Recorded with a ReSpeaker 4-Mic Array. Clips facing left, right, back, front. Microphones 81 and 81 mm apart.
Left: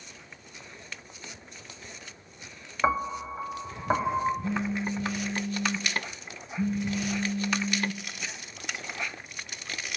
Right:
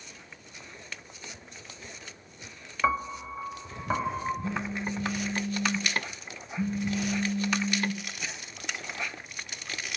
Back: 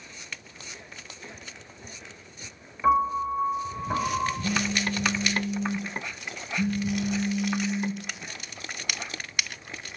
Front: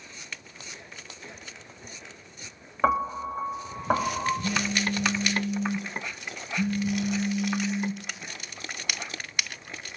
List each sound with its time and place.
2.8 s a piano: 20° left, 0.8 m
4.4 s a phone buzzing: 25° right, 2.5 m